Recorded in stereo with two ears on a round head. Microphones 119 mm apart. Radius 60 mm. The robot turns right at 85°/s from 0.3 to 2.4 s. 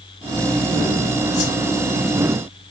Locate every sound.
1.3 s a whoosh: 50° left (ahead or behind), 1.9 m; by 1.6 s 65° left (ahead or behind), 1.9 m